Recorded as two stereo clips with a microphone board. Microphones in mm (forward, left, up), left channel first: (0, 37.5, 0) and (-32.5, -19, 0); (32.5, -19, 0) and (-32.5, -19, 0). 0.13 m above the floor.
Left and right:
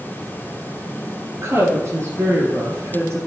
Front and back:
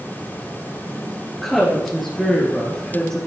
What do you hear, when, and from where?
1.3 s a woman speaking: 90° right, 2.5 m; by 3.2 s 80° right, 3.5 m